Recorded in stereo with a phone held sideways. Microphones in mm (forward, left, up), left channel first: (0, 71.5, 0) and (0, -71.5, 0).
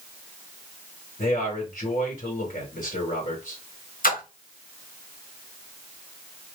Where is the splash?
70° left (ahead or behind), 1.9 m.